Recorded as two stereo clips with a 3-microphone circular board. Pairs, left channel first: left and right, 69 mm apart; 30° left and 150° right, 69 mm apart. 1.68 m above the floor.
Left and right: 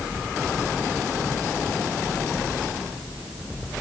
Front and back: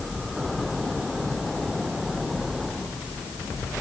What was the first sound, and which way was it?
Only background noise.